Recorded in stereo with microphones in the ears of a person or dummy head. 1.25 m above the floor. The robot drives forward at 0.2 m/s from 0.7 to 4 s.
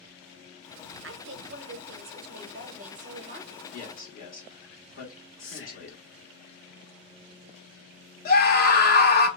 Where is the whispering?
65° left (ahead or behind), 0.7 m.